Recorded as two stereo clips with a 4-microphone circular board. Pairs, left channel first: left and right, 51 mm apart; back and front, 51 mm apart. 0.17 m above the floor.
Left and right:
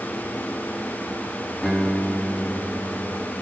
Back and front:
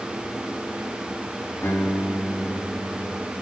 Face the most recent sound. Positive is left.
turn(degrees=175)